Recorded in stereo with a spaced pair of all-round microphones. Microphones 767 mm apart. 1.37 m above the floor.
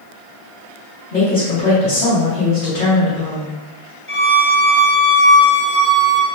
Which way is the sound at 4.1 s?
15° left (ahead or behind).